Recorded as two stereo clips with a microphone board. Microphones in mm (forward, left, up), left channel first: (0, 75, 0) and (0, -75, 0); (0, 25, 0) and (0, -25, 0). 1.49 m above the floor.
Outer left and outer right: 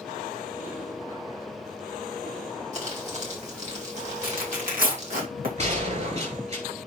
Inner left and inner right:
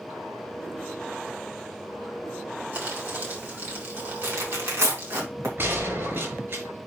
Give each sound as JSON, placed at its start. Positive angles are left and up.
{"t": 2.7, "sound": "crumpling", "side_deg": -50, "distance_m": 3.0}
{"t": 4.2, "sound": "tearing paper", "side_deg": -70, "distance_m": 3.0}
{"t": 5.6, "sound": "a gunshot", "side_deg": -50, "distance_m": 5.5}